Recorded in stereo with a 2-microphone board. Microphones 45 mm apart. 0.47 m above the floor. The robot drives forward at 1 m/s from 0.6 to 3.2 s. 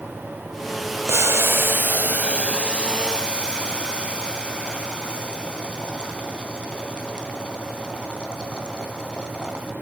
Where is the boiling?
65° right (ahead or behind), 0.8 m; by 9.7 s 20° right (ahead or behind), 2.5 m.